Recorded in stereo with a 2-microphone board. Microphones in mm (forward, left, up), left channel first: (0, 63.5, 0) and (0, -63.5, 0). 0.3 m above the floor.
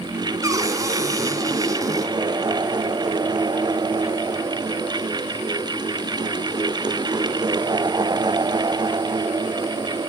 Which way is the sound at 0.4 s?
25° right (ahead or behind).